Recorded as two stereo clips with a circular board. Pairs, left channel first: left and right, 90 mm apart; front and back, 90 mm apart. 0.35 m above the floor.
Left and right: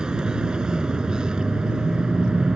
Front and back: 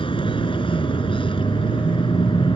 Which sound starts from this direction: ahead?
A vehicle, at 0.0 s.